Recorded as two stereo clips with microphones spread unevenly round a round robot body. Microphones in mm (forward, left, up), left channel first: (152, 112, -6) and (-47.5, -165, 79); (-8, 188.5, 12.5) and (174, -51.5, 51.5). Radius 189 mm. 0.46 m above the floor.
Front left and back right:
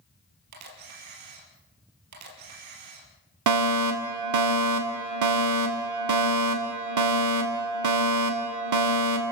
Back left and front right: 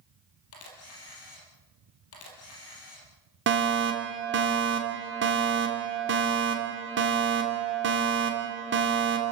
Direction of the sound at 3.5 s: 100° right.